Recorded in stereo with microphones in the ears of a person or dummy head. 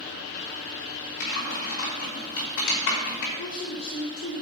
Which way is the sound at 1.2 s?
65° left (ahead or behind).